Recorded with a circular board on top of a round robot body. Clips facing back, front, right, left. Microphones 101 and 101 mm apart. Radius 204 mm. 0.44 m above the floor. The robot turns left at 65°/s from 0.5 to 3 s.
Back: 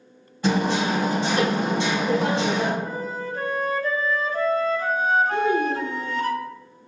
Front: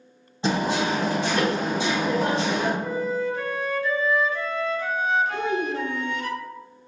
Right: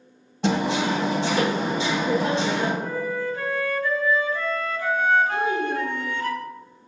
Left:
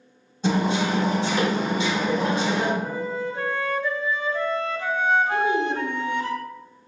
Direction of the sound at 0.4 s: 70° right.